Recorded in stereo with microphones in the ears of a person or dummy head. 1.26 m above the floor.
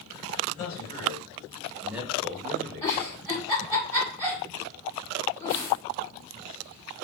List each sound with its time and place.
0.5 s a man speaking: 30° left (ahead or behind), 1.2 m; by 3.3 s 75° right (ahead or behind), 0.8 m
2.8 s a giggle: 10° left (ahead or behind), 1.3 m